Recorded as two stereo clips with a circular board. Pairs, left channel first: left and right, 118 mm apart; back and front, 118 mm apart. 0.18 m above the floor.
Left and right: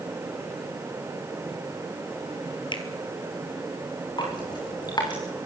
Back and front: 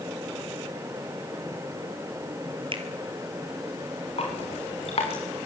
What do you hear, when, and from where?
2.7 s a finger snap: 40° left, 2.5 m
4.2 s dripping: 145° left, 5.5 m